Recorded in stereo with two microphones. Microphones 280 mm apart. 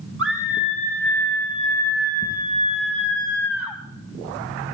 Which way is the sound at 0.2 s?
50° right (ahead or behind).